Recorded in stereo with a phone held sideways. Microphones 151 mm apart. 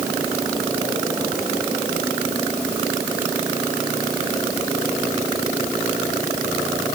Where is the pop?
No pop in this recording.